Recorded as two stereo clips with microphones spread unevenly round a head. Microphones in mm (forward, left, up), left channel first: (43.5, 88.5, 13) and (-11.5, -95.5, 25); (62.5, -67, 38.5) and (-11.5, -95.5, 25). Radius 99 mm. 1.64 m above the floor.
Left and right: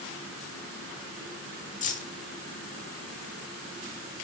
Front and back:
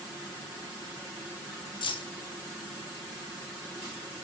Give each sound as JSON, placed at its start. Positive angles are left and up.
{"t": 1.8, "sound": "keys jangling", "azimuth_deg": 20, "distance_m": 2.0}